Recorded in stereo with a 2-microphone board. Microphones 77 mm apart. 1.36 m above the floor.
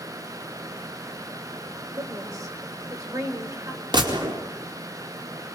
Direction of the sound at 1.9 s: 45° right (ahead or behind).